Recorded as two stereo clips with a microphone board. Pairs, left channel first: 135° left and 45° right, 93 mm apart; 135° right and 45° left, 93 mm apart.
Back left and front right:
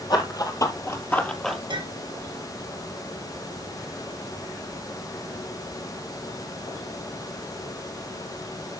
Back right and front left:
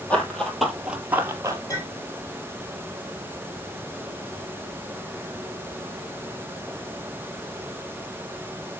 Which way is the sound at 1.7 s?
80° right.